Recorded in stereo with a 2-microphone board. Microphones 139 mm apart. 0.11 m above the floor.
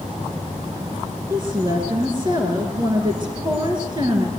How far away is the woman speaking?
About 1.6 m.